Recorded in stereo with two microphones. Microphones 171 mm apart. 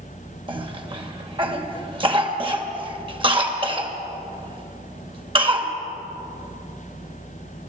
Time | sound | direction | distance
0.5 | a cough | 35° right (ahead or behind) | 2.5 m